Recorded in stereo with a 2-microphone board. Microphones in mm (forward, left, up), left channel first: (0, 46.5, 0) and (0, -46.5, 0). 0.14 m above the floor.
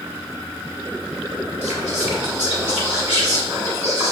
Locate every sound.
1.6 s whispering: 15° right (ahead or behind), 1.1 m